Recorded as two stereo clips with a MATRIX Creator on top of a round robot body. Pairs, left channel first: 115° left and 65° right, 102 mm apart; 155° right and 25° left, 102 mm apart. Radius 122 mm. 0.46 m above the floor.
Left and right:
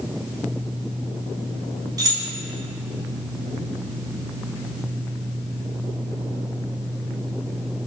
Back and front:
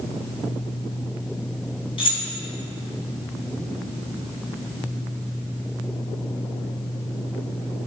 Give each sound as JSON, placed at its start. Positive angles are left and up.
{"t": 2.0, "sound": "keys jangling", "azimuth_deg": -125, "distance_m": 4.0}